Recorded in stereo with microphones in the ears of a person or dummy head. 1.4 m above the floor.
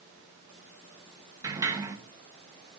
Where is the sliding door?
10° right (ahead or behind), 1.7 m.